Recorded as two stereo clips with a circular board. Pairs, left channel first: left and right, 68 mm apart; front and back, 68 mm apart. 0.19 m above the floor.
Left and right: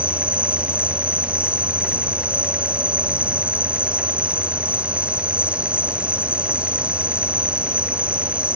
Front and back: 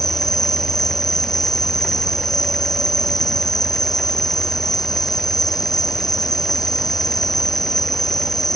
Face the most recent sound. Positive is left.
turn(degrees=-20)